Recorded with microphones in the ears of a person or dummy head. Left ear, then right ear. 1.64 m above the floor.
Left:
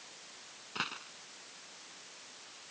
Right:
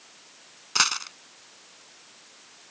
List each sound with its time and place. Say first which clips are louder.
0.8 s a dropped coin: right 15 dB; 55° right (ahead or behind)